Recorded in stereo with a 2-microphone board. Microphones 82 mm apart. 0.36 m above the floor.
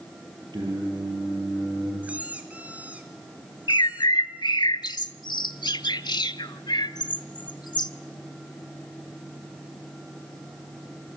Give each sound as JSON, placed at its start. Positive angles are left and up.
{"t": 0.5, "sound": "singing", "side_deg": -65, "distance_m": 8.5}
{"t": 2.0, "sound": "a squeak", "side_deg": -20, "distance_m": 2.5}
{"t": 3.7, "sound": "a bird", "side_deg": 65, "distance_m": 0.7}